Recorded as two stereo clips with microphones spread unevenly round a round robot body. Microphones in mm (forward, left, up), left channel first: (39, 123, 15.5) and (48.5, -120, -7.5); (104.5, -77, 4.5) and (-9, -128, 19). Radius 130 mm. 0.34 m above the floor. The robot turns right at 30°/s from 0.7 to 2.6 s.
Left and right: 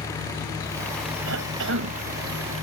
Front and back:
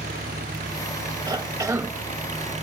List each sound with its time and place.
0.0 s an engine running: 170° left; by 2.6 s 130° right
1.3 s a cough: 105° right; by 1.9 s 85° right